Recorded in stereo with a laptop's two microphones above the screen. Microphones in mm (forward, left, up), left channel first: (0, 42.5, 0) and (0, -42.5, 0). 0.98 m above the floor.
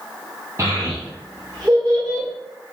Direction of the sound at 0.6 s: 35° right (ahead or behind).